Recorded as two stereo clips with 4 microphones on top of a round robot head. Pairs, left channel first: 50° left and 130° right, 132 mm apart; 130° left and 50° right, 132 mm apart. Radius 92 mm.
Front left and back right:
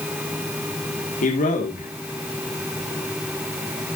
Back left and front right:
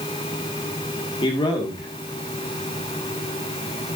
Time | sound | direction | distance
1.2 | a man speaking | 75° left | 2.0 m